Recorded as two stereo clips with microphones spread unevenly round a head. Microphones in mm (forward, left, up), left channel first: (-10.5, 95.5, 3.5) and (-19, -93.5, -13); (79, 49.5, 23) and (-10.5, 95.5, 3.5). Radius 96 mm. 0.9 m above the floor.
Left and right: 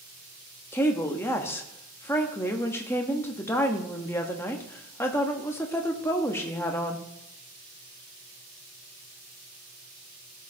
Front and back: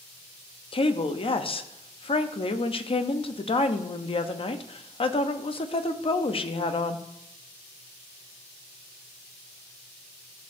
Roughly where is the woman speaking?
Ahead.